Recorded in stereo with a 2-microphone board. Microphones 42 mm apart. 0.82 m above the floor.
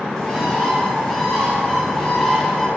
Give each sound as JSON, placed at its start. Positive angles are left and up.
{"t": 0.2, "sound": "a bird", "side_deg": 15, "distance_m": 1.5}